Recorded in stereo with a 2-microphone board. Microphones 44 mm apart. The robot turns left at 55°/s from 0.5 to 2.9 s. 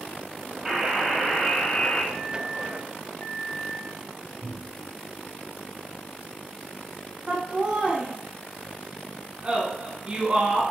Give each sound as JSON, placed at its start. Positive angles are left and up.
{"t": 0.7, "sound": "a buzzer", "azimuth_deg": -160, "distance_m": 1.0}
{"t": 2.1, "sound": "a microwave", "azimuth_deg": 130, "distance_m": 1.7}
{"t": 4.4, "sound": "a cupboard door", "side_deg": -25, "distance_m": 1.7}
{"t": 7.3, "sound": "laughter", "side_deg": -30, "distance_m": 1.2}